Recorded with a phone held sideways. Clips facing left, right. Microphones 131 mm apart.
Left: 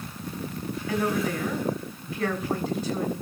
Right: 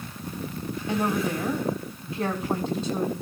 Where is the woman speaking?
25° right (ahead or behind), 7 m.